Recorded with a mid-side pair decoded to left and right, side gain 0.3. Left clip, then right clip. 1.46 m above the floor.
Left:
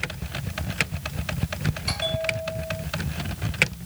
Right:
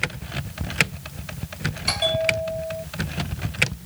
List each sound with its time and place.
1.9 s a bell: 55° right